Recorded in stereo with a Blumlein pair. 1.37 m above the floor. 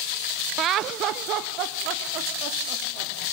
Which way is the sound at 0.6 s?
30° right.